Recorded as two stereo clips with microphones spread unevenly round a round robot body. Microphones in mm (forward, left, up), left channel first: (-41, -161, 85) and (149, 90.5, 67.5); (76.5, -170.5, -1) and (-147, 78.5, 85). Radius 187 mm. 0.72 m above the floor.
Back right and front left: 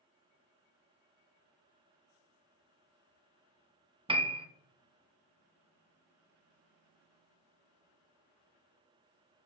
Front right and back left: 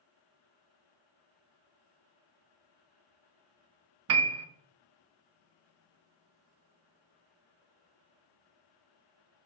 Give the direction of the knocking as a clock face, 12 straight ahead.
I don't hear knocking.